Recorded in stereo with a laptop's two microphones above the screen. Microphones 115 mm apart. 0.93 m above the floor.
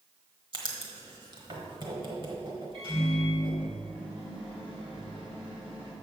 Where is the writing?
45° right (ahead or behind), 1.2 m.